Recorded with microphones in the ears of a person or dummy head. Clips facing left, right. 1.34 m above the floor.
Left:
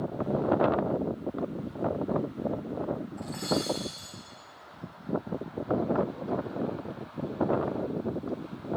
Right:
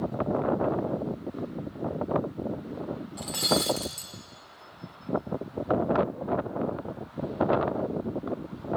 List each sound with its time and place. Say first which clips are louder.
3.2 s breaking glass: right 5 dB; 40° right (ahead or behind), 1.3 m